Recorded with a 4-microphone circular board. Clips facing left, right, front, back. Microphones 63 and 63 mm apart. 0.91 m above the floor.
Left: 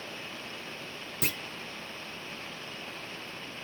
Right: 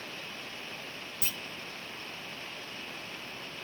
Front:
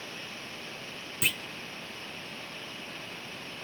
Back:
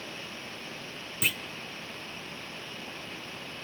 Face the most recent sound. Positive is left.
turn(degrees=90)